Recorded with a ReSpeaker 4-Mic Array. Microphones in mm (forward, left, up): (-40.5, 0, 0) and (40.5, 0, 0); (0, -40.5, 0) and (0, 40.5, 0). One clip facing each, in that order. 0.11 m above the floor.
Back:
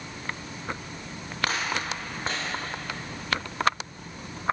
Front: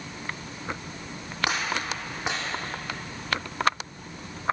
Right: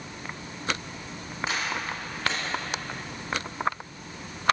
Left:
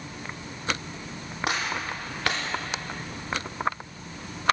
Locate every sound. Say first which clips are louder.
1.5 s a gunshot: front 1 dB, left 2 dB; 80° left, 2.5 m